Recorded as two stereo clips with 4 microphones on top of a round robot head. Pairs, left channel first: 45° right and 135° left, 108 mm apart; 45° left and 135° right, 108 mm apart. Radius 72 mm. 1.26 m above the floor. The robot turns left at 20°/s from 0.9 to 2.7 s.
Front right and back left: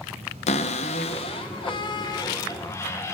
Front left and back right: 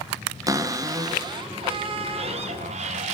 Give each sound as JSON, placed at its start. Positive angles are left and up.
{"t": 0.5, "sound": "a cupboard door", "azimuth_deg": -75, "distance_m": 0.8}